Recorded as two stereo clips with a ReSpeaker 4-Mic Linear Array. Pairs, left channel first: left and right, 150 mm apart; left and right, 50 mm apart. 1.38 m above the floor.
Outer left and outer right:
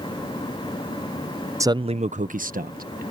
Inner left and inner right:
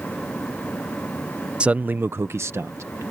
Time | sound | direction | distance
1.6 | a man speaking | 20° right (ahead or behind) | ?